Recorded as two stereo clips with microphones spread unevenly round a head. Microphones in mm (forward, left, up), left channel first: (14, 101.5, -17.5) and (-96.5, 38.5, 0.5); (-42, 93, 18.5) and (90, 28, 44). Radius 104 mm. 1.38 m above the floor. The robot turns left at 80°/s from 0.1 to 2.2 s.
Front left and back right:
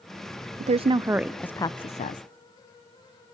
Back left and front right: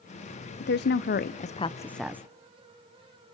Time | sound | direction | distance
0.6 | a woman speaking | straight behind | 0.6 m